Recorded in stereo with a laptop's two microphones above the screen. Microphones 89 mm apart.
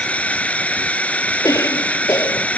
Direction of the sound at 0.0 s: 15° left (ahead or behind).